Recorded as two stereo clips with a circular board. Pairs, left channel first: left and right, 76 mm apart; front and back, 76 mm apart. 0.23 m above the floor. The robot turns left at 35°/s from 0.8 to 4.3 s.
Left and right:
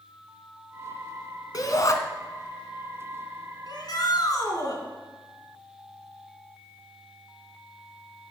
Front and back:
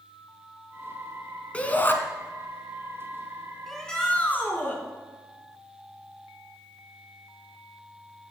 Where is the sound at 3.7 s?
85° left, 3 m; by 4.8 s 65° left, 3 m.